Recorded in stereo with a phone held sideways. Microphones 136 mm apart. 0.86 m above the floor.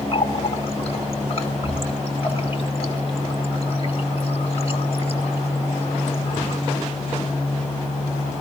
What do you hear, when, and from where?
0.1 s a running tap: 45° left (ahead or behind), 1.7 m